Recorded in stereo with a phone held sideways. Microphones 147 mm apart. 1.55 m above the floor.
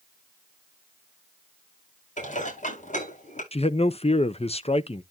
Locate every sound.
2.2 s dishes clattering: 60° left (ahead or behind), 7 m
3.5 s a man speaking: 45° left (ahead or behind), 0.8 m